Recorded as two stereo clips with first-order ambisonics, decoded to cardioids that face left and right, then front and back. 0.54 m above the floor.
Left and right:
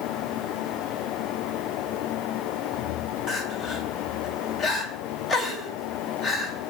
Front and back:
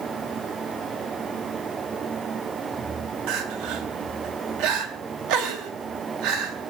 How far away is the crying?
About 3 m.